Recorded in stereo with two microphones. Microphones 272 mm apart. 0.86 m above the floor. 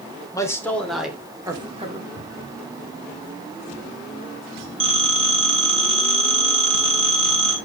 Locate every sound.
0.3 s a man speaking: 10° left (ahead or behind), 2.5 m; by 2.1 s 30° right (ahead or behind), 1.9 m
2.2 s a cupboard door: 55° left (ahead or behind), 5.5 m
4.8 s a phone ringing: 20° right (ahead or behind), 3.5 m